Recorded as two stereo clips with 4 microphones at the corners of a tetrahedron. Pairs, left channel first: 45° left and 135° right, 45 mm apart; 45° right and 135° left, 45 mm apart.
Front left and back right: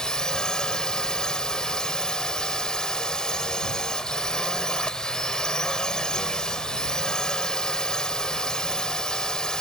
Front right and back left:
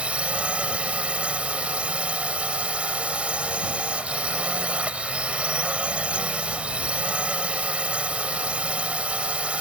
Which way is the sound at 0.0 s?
100° left.